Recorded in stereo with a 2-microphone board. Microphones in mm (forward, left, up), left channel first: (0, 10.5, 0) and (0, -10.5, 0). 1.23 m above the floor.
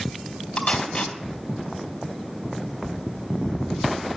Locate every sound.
0.6 s tape being pulled: 55° left (ahead or behind), 2.5 m